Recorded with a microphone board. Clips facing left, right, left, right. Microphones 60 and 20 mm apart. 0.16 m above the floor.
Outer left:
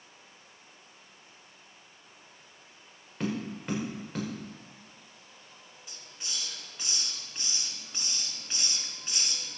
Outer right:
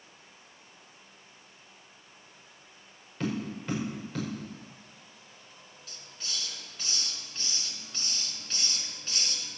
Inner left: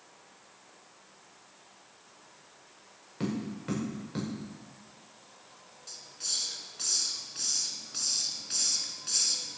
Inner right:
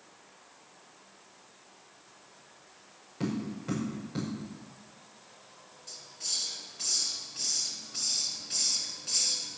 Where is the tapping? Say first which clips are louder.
Even, even; 20° left (ahead or behind), 5.5 m.